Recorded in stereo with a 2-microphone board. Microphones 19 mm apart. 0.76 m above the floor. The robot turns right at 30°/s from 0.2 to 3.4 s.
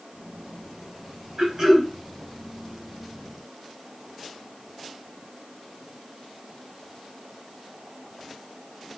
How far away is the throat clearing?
About 2 m.